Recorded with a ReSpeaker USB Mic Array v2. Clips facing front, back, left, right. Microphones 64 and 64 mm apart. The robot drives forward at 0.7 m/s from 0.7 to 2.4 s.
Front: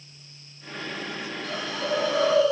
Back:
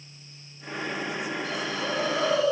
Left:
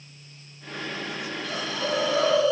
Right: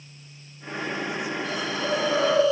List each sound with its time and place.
1.4 s a hiss: 25° right, 4 m; by 2.5 s 30° right, 3.5 m